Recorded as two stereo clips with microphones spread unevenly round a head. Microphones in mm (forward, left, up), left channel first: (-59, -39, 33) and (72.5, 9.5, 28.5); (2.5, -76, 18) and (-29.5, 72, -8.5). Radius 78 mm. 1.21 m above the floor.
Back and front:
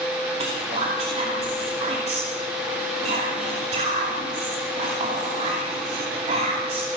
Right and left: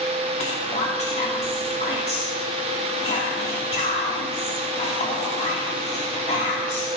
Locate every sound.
0.4 s whispering: 25° right, 2.5 m